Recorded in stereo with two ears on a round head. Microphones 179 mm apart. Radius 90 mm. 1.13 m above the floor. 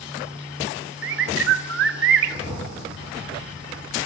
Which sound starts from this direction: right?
A bird, at 1.0 s.